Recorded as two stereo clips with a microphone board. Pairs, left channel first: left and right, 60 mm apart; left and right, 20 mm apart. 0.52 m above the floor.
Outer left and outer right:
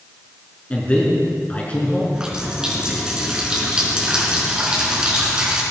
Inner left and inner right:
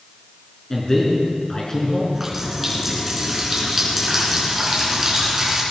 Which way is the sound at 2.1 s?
15° right (ahead or behind).